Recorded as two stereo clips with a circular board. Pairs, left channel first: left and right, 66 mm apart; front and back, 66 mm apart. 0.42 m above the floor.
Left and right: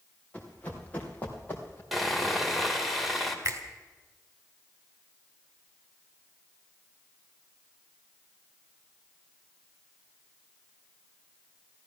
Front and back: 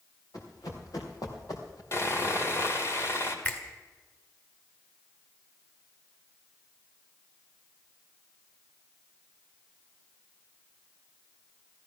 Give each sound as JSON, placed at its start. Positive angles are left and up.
{"t": 0.3, "sound": "running footsteps", "azimuth_deg": 20, "distance_m": 4.0}
{"t": 1.9, "sound": "sawing", "azimuth_deg": 0, "distance_m": 1.9}
{"t": 3.5, "sound": "a finger snap", "azimuth_deg": -55, "distance_m": 2.5}